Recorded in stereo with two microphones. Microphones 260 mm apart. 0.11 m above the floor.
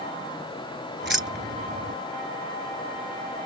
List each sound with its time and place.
1.0 s keys jangling: 45° right (ahead or behind)